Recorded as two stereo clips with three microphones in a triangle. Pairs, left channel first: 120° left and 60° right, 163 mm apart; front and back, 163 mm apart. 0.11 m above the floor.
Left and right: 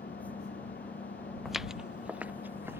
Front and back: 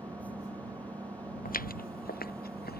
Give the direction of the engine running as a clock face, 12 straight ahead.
8 o'clock.